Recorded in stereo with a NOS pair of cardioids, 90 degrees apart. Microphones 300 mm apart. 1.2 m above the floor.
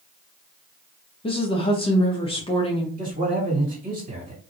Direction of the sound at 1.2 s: 20° left.